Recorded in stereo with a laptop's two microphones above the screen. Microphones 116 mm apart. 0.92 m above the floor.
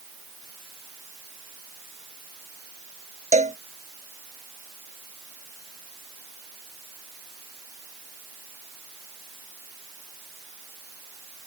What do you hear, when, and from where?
3.3 s a cowbell: 80° right